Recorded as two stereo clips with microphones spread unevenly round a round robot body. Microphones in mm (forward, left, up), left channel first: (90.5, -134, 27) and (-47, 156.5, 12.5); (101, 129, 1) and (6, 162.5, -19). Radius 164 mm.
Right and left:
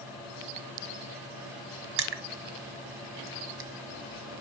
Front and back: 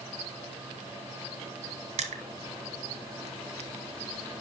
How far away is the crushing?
About 1.1 m.